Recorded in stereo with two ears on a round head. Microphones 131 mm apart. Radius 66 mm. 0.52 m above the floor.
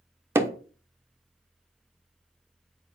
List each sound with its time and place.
0.3 s hammering: 15° right (ahead or behind), 1.0 m